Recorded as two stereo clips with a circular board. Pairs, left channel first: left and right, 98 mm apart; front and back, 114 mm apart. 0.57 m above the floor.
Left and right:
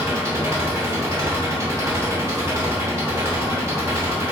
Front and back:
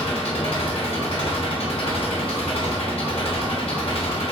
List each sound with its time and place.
0.0 s an engine running: 30° right, 0.9 m